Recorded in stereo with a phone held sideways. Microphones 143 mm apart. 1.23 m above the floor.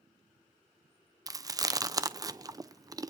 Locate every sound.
1.3 s chewing: 25° right (ahead or behind), 0.6 m